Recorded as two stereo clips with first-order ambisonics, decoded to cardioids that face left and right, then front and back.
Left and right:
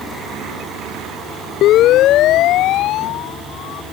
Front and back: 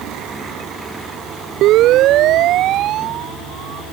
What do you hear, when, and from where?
1.6 s a siren: 135° left; by 3.8 s 130° left